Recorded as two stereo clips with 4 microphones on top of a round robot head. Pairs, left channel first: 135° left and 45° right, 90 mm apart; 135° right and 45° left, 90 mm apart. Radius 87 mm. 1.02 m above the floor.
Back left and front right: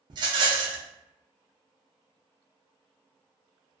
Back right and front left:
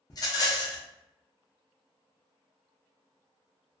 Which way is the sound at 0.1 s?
85° right.